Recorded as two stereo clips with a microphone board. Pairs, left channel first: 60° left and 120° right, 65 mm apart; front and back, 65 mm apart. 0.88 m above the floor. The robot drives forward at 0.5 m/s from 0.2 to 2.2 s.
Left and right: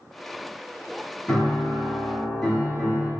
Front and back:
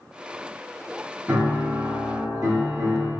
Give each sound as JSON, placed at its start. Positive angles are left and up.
{"t": 1.3, "sound": "a piano", "azimuth_deg": 125, "distance_m": 1.3}